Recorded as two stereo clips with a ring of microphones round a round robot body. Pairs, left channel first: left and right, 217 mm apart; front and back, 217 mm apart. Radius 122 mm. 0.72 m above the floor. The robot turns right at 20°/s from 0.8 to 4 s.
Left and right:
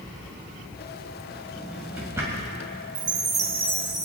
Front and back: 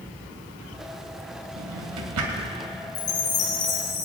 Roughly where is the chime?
Ahead right.